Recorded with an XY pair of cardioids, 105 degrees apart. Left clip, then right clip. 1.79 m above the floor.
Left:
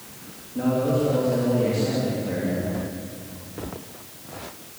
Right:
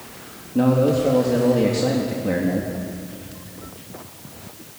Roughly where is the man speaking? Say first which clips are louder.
Right 5 dB; ahead right.